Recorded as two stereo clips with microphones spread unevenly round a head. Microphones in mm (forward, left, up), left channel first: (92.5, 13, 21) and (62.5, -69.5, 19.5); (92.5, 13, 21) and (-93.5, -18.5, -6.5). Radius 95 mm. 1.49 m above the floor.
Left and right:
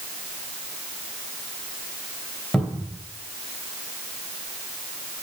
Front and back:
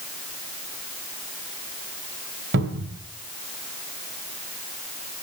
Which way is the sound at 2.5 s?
155° left.